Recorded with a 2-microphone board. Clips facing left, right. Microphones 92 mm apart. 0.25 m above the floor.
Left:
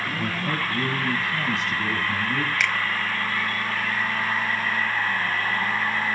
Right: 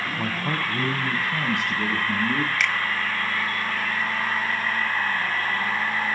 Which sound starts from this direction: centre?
A finger snap, at 2.6 s.